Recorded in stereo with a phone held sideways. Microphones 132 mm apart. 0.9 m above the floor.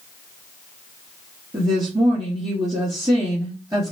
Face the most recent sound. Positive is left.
turn(degrees=-35)  # may be behind; listen again after turning